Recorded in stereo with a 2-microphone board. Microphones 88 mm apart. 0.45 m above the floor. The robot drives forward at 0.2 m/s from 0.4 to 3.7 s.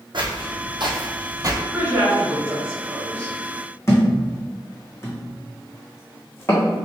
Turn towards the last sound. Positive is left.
turn(degrees=30)  # may be behind; listen again after turning